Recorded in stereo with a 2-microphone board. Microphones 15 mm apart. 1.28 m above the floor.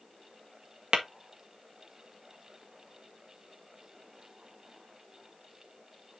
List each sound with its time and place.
0.9 s tapping: 70° right (ahead or behind), 1.7 m